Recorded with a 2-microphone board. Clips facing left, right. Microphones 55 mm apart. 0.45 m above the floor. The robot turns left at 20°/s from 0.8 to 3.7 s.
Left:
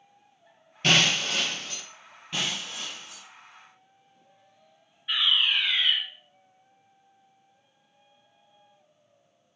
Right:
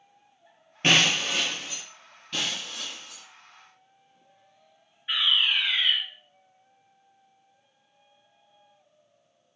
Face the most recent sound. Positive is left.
turn(degrees=-15)  # may be behind; listen again after turning